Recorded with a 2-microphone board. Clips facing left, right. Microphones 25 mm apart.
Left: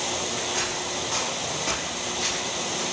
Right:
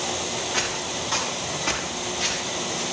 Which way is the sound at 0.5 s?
25° right (ahead or behind).